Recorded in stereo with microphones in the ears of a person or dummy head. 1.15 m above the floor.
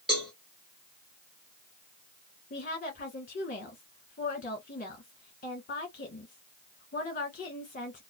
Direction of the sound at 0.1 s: 5° right (ahead or behind).